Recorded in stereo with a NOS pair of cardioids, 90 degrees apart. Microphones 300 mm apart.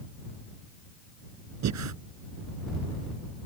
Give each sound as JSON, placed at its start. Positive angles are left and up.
{"t": 1.6, "sound": "breathing", "azimuth_deg": -65}